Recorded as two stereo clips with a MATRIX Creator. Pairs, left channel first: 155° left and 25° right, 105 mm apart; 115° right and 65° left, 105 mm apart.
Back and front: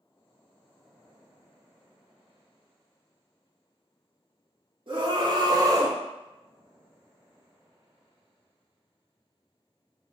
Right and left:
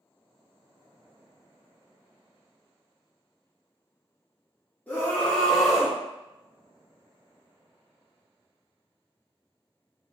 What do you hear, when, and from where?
4.9 s a scream: 40° right, 1.3 m; by 6.0 s 10° left, 0.8 m